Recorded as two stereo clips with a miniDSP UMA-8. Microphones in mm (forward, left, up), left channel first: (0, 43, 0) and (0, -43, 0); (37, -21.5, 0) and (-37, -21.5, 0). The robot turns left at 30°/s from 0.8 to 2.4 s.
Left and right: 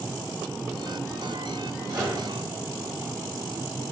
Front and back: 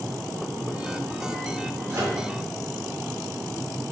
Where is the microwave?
130° right, 1.4 m; by 2.2 s 135° right, 1.4 m.